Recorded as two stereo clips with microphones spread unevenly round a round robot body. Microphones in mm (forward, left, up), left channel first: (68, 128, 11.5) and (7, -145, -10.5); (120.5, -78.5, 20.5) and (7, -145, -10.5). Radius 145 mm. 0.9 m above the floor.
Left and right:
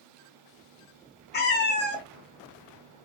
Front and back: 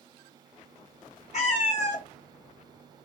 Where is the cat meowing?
25° left, 0.6 m.